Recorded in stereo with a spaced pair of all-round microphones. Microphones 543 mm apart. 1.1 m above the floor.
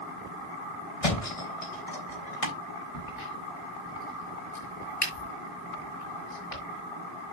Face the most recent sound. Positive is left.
turn(degrees=80)